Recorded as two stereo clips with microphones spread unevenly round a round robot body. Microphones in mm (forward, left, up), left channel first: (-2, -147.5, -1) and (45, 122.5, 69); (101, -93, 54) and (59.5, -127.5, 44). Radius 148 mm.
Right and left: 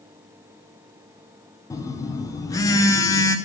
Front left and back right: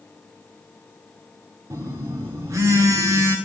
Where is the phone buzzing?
175° right, 0.7 m.